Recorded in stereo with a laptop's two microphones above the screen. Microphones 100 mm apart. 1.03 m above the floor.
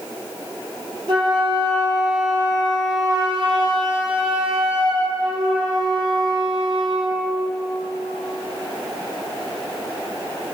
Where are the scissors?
I don't hear scissors.